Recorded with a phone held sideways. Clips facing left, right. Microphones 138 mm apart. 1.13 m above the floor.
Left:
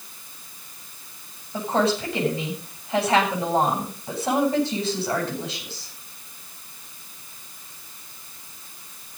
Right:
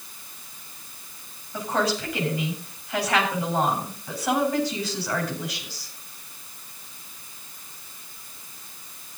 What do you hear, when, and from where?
1.5 s a woman speaking: 25° left (ahead or behind), 9 m